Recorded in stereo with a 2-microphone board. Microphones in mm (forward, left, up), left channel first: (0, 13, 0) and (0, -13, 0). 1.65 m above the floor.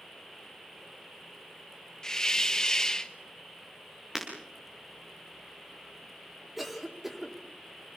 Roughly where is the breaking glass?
Centre.